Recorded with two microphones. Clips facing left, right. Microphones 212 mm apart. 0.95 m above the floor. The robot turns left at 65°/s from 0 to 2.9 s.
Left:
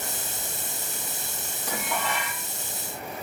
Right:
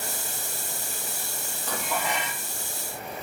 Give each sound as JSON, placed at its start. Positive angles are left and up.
{"t": 1.7, "sound": "dishes clattering", "azimuth_deg": 15, "distance_m": 0.6}